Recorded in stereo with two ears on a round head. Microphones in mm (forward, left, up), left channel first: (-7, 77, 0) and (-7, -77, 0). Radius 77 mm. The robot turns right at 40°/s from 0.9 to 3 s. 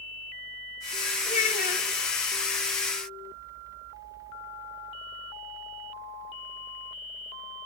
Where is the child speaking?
40° left (ahead or behind), 1.9 m; by 1.9 s 60° left (ahead or behind), 1.9 m.